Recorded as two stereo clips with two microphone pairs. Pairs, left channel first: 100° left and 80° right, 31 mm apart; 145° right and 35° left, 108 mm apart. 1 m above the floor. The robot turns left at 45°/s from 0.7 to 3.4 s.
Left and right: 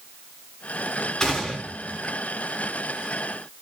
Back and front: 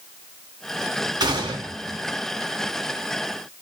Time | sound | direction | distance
1.2 | a gunshot | 35° left | 0.8 m